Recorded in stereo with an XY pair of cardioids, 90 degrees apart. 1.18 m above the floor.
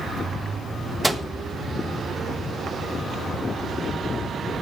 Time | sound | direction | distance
1.0 | a microwave | 10° right | 1.0 m